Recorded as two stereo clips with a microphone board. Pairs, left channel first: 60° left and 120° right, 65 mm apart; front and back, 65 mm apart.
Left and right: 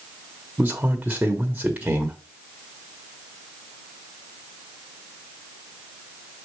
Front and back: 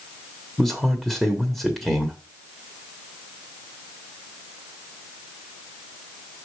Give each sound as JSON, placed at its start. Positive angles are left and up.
{"t": 0.6, "sound": "a man speaking", "azimuth_deg": -95, "distance_m": 1.2}